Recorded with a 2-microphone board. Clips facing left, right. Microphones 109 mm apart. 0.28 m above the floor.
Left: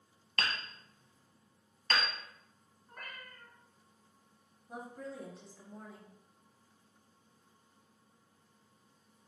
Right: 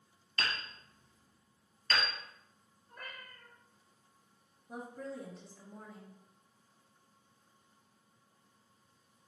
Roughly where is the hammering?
Left.